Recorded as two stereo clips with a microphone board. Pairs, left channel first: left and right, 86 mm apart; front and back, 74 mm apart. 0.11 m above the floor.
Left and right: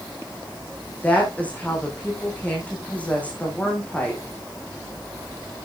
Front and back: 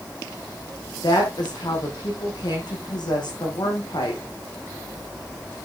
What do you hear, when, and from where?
1.0 s a woman speaking: 15° left, 5 m